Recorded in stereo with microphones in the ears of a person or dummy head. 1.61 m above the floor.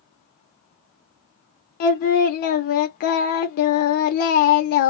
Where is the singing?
50° left (ahead or behind), 0.7 m.